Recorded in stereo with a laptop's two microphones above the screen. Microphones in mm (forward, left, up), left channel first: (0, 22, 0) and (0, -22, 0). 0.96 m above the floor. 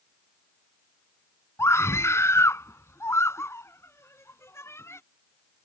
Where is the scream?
85° left; by 5.0 s 75° left (ahead or behind).